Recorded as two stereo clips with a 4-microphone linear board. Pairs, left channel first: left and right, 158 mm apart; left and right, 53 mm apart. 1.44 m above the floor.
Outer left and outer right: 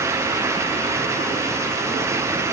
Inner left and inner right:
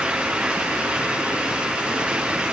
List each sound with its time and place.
Only background noise.